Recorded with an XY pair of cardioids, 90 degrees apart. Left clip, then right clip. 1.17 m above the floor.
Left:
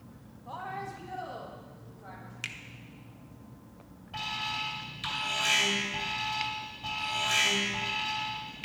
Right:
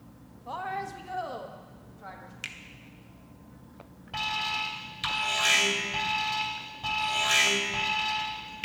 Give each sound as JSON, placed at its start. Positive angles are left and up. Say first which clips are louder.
{"t": 0.5, "sound": "a woman speaking", "louder": "right 4 dB", "azimuth_deg": -45, "distance_m": 1.0}
{"t": 2.4, "sound": "a finger snap", "louder": "left 1 dB", "azimuth_deg": 5, "distance_m": 0.9}
{"t": 4.1, "sound": "an alarm", "louder": "right 4 dB", "azimuth_deg": -45, "distance_m": 2.5}